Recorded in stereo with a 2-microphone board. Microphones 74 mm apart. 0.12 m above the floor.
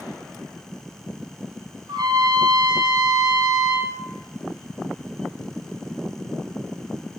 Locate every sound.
1.9 s a trumpet: 65° right (ahead or behind), 2.5 m